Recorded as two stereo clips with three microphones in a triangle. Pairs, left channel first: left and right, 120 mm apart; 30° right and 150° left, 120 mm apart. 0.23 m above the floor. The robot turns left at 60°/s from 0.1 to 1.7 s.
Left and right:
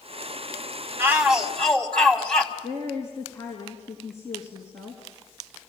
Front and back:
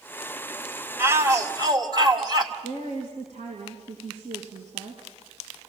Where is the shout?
150° right, 1.8 m; by 2.5 s 165° left, 1.8 m.